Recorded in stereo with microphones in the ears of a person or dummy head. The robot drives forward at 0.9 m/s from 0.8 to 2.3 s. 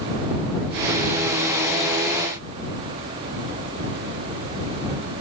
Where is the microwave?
I don't hear a microwave.